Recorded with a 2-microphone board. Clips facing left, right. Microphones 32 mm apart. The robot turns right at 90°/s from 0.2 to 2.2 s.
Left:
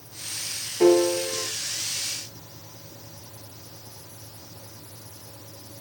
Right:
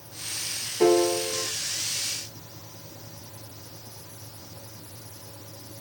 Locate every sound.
0.8 s a piano: 5° left, 1.6 m; by 1.5 s 65° left, 1.6 m